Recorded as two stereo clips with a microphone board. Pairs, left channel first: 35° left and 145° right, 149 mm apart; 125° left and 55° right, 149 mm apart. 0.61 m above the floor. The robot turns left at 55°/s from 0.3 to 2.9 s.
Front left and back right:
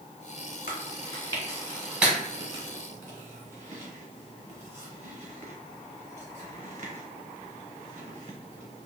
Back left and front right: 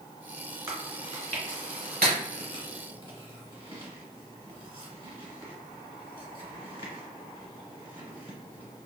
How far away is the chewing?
About 1.1 m.